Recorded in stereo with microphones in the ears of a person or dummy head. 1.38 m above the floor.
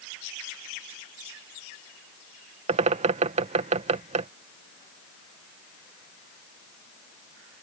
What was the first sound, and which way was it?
A bird, 40° right (ahead or behind).